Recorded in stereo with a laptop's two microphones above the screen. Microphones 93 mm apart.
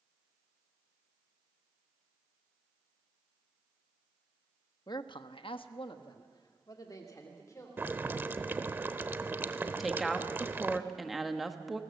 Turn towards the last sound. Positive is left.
turn(degrees=-5)  # may be behind; listen again after turning